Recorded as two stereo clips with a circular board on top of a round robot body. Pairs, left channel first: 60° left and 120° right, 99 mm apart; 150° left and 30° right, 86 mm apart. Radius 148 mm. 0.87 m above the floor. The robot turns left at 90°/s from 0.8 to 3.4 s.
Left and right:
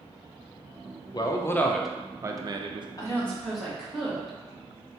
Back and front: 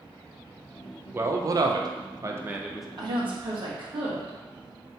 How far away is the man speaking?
About 0.6 m.